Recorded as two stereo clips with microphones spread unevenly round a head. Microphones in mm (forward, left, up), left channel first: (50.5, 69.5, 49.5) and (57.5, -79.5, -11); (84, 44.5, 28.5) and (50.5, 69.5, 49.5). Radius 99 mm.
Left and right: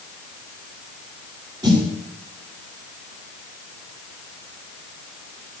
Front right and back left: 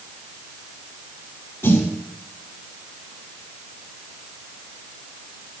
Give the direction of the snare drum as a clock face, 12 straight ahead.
1 o'clock.